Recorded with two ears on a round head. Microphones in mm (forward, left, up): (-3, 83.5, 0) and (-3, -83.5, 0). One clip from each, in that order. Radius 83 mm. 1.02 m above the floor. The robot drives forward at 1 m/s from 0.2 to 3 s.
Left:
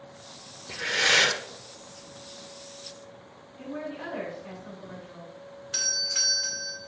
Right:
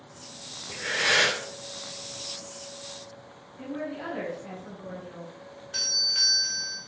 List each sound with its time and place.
0.7 s breathing: 70° left (ahead or behind), 2.5 m; by 1.4 s 65° left (ahead or behind), 2.5 m
3.6 s a woman speaking: 15° left (ahead or behind), 5 m
5.7 s a doorbell: 50° left (ahead or behind), 1.6 m